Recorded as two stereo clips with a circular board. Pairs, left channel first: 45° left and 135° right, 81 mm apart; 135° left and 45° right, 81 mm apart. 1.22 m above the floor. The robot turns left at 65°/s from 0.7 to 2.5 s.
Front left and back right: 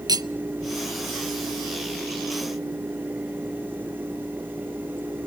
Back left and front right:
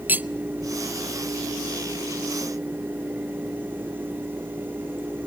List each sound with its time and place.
0.1 s cutlery clinking: 110° right, 0.6 m